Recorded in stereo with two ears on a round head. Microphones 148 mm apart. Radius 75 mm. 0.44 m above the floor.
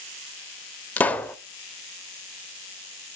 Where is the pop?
10° left (ahead or behind), 0.8 m.